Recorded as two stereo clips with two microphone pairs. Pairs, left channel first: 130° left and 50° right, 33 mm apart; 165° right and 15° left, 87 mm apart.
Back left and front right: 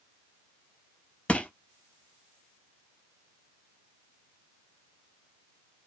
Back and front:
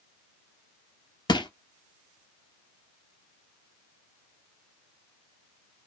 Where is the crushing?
Straight behind, 0.5 m.